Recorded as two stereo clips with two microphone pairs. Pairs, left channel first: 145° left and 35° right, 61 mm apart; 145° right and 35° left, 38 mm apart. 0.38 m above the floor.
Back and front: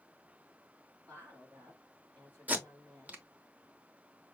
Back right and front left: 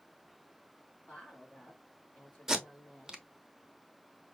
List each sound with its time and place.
1.1 s a woman speaking: 90° right, 2.5 m
2.5 s tape being pulled: 20° right, 0.9 m